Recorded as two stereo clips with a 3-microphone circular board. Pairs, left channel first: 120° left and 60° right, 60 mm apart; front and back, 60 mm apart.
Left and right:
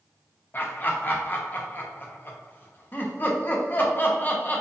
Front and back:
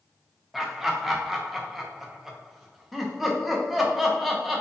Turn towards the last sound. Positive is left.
turn(degrees=95)